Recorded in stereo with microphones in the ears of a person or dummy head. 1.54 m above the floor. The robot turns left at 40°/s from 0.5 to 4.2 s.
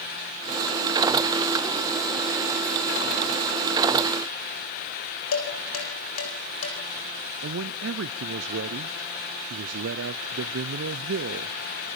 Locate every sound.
5.3 s dishes clattering: 85° left, 5.5 m
7.4 s a man speaking: 70° right (ahead or behind), 0.7 m